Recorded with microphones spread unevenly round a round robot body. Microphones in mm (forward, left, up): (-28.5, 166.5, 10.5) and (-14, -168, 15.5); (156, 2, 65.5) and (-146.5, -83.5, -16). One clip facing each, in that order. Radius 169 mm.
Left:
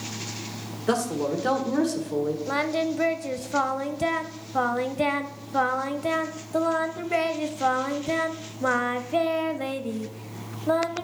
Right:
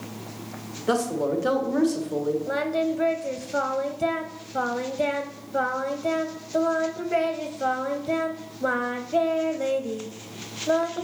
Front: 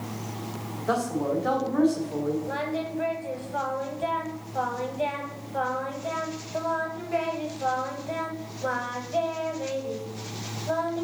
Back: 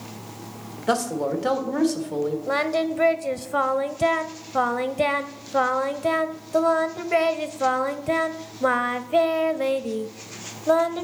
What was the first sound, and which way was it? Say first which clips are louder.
A man speaking: right 1 dB, back 2 dB; 175° left.